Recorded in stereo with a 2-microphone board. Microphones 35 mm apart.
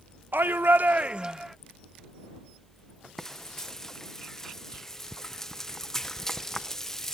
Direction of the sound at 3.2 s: 15° left (ahead or behind).